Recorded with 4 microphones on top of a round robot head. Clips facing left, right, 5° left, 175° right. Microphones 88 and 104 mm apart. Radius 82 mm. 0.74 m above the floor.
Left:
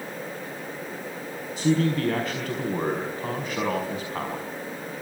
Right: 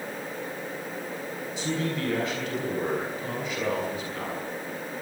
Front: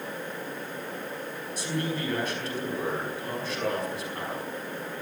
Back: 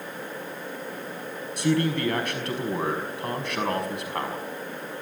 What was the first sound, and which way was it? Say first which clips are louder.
A man speaking: left 7 dB, back 8 dB; 150° left.